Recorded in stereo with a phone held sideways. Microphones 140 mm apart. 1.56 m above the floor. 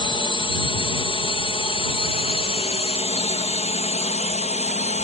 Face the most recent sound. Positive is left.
turn(degrees=50)  # may be behind; listen again after turning